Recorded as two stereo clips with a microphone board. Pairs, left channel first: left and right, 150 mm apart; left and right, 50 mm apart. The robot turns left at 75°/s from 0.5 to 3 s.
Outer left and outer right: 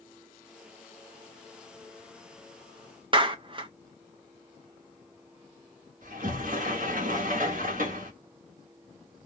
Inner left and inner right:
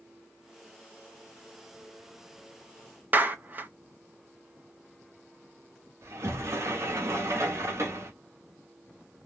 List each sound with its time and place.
3.1 s a clap: 35° right (ahead or behind), 0.5 m
6.0 s a sliding door: 65° right (ahead or behind), 1.0 m